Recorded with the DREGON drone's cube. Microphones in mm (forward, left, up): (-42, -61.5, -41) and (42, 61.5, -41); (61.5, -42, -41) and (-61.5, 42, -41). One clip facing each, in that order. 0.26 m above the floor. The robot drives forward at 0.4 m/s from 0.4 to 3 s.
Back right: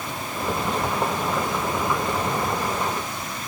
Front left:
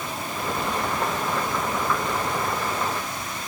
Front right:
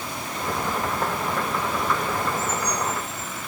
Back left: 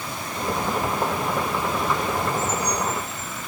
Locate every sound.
Only background noise.